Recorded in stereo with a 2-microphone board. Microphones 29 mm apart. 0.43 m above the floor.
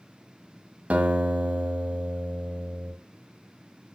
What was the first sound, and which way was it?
A guitar, 50° right (ahead or behind).